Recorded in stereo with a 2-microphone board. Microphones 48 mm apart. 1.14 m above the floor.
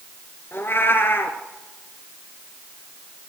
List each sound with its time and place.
0.5 s a cat meowing: 50° left (ahead or behind), 2 m